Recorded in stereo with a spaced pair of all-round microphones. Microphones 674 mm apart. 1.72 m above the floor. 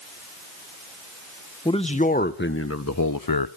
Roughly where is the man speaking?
Centre.